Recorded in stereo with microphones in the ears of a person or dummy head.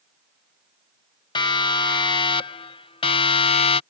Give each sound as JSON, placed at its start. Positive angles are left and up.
{"t": 1.4, "sound": "a siren", "side_deg": 25}